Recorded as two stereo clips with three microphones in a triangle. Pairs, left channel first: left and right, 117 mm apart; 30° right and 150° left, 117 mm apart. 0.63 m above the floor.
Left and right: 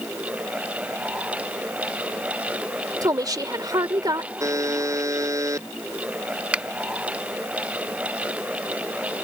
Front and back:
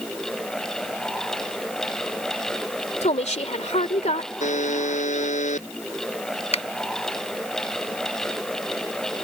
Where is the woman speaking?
35° right.